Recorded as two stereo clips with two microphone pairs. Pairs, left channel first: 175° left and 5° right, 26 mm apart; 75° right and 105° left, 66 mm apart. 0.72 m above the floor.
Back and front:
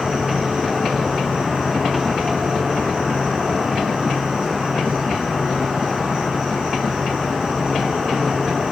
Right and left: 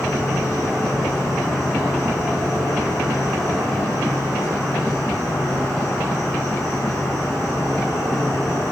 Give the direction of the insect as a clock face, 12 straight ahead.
2 o'clock.